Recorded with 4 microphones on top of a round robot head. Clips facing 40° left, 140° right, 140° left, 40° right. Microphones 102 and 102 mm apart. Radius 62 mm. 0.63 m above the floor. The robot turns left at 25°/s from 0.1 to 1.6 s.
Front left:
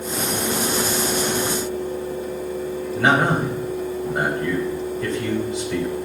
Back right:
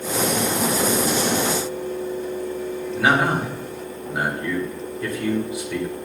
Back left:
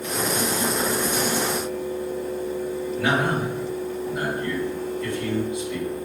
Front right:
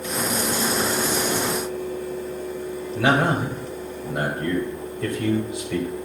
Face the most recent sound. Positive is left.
turn(degrees=-60)